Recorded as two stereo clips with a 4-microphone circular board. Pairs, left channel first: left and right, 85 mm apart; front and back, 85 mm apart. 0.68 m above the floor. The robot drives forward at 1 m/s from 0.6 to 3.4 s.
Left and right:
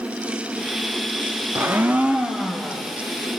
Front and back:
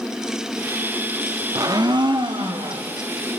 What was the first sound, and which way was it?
A blender, 145° right.